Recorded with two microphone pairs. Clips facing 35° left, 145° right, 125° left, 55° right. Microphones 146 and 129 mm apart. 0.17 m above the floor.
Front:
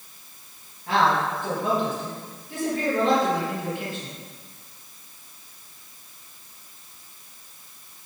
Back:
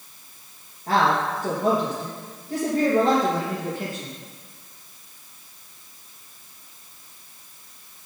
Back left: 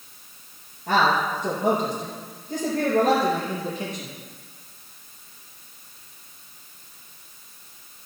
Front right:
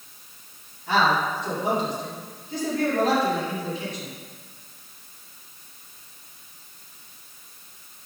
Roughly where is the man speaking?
Behind.